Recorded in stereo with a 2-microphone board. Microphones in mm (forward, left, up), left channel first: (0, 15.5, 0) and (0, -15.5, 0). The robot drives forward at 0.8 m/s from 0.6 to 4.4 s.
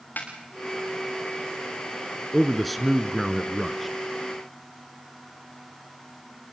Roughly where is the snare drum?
Left.